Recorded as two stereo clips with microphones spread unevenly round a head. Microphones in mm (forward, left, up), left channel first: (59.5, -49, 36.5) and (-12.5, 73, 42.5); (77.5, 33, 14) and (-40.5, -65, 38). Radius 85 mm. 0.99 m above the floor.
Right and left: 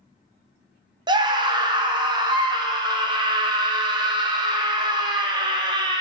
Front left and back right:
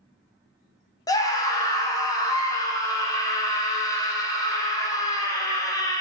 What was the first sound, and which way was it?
A scream, 80° left.